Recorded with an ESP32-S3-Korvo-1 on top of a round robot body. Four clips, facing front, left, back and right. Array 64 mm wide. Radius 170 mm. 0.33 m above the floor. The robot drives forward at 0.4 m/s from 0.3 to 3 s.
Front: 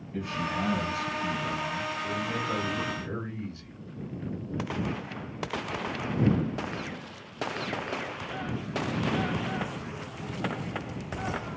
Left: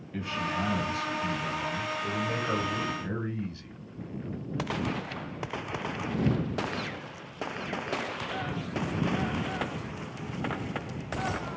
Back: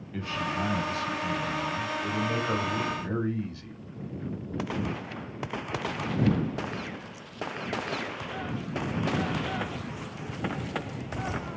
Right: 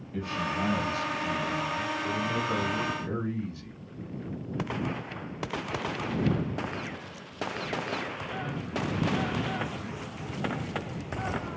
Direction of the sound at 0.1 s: 140° left.